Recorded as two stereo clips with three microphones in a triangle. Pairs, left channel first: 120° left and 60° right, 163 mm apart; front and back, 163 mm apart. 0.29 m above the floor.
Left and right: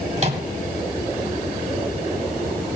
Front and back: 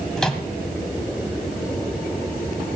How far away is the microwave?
About 1.4 m.